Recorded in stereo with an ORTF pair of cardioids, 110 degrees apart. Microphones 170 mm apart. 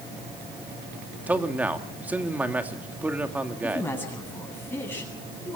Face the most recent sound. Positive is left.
turn(degrees=15)